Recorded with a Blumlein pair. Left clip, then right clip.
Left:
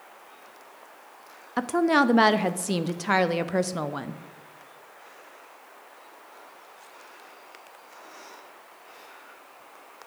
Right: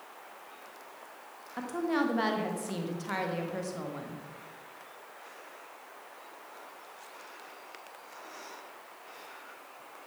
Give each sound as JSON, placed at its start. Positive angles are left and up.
{"t": 1.6, "sound": "a woman speaking", "azimuth_deg": 30, "distance_m": 0.7}